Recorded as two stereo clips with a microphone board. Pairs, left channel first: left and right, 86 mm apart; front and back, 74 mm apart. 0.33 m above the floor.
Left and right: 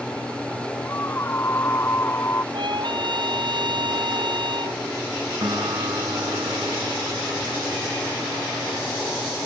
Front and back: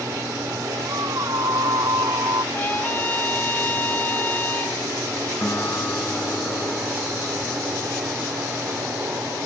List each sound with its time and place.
0.8 s a scream: 150° left
2.5 s a trumpet: 65° right
5.4 s a guitar: 60° right